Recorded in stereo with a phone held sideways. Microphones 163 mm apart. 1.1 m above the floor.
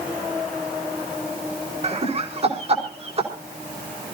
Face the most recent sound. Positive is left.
turn(degrees=-40)  # may be behind; listen again after turning